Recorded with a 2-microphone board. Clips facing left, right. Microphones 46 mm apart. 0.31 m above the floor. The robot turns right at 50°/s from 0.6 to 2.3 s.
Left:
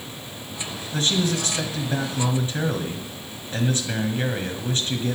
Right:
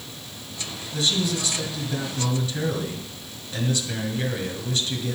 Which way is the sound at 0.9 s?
65° left.